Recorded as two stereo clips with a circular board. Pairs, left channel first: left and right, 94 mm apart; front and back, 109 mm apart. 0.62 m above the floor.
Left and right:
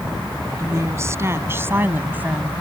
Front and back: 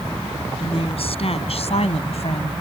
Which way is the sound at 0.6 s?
30° right.